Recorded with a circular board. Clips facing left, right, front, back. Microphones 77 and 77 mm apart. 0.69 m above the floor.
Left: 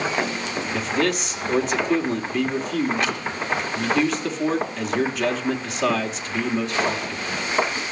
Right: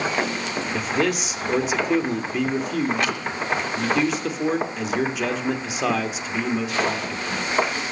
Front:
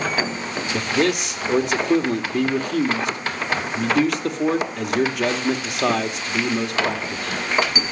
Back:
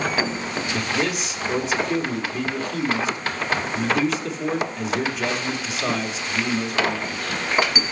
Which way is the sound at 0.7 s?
5° right.